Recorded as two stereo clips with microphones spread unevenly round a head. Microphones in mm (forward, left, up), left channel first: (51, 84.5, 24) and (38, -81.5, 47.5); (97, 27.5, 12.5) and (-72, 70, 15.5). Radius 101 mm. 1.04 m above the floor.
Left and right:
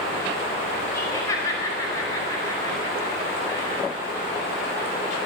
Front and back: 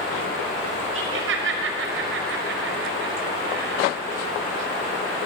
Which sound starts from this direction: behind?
Laughter, at 0.9 s.